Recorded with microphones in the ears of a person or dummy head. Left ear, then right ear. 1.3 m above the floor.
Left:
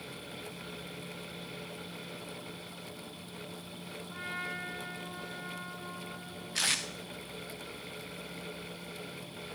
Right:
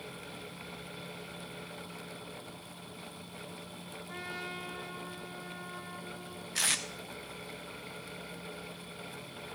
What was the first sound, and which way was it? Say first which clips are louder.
A trumpet: left 2 dB; 70° right (ahead or behind).